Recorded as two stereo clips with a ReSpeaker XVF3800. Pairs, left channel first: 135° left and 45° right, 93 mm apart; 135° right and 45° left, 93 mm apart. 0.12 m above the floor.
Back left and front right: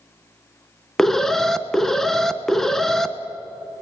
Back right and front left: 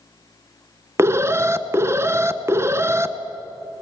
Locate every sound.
1.0 s an alarm: 50° left, 0.8 m